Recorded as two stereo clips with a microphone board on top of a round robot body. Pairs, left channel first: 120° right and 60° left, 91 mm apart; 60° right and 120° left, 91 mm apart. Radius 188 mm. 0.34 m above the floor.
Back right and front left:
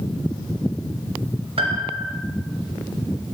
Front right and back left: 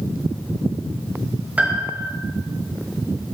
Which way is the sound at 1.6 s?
45° left.